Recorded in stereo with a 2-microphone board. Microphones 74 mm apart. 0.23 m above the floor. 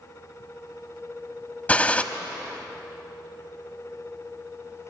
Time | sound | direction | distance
1.7 | a gunshot | 20° left (ahead or behind) | 1.1 m